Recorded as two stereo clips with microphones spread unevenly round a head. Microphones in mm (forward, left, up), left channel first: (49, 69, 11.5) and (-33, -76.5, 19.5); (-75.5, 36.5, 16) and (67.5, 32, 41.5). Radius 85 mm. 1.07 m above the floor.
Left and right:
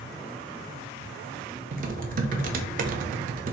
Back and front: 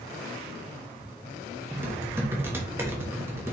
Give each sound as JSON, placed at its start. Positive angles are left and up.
{"t": 1.7, "sound": "typing on a keyboard", "azimuth_deg": -80, "distance_m": 0.9}